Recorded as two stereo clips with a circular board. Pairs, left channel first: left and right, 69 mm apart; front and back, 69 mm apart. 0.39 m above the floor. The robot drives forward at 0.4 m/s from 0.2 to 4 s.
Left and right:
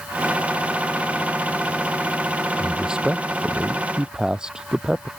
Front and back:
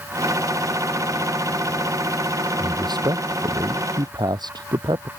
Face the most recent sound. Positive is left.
turn(degrees=-170)